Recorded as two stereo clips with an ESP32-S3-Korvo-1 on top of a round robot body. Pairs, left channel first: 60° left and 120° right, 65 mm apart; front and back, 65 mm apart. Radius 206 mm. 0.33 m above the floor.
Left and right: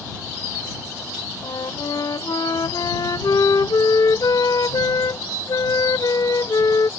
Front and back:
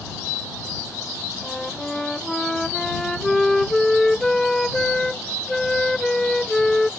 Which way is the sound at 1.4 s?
85° left.